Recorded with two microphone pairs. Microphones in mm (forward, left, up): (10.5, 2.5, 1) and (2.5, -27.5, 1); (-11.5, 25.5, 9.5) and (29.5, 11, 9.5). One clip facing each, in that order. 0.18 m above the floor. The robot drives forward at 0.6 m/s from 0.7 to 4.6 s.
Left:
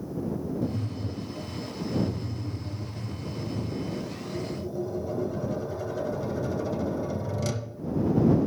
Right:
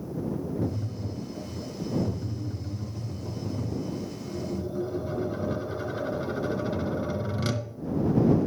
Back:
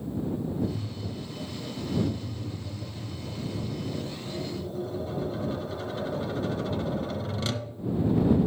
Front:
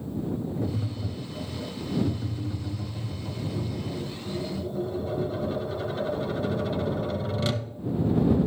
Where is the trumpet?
No trumpet in this recording.